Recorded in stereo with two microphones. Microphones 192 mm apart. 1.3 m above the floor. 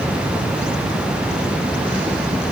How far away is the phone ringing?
I don't hear a phone ringing.